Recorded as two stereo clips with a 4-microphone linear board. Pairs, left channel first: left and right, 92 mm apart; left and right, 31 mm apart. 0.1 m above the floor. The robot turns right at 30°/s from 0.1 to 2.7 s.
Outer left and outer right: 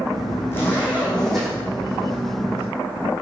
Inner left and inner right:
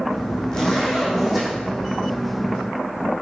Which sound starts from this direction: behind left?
A zipper, at 0.5 s.